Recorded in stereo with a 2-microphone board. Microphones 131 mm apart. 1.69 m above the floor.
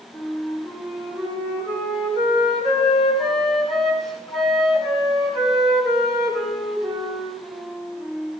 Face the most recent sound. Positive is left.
turn(degrees=0)  # may be behind; listen again after turning